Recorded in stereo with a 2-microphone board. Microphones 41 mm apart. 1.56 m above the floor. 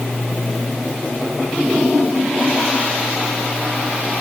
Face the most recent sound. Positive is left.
No sound to turn to.